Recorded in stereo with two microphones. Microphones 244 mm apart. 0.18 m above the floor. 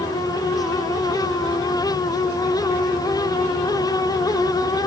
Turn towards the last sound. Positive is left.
No sound to turn to.